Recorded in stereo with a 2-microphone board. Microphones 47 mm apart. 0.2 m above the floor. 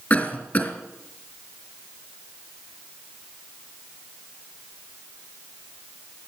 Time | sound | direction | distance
0.1 | a cough | 35° left (ahead or behind) | 3.5 m